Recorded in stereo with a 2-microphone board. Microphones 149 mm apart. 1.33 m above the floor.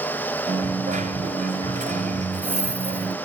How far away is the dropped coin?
About 2 m.